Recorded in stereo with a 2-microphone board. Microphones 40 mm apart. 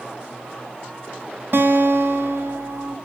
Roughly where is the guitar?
Right.